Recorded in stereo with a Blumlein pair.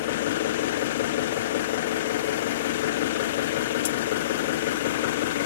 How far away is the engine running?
About 0.7 m.